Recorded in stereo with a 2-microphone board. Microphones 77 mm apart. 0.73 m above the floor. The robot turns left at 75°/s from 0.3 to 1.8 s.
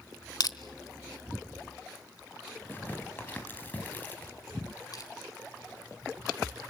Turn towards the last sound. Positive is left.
turn(degrees=60)  # may be behind; listen again after turning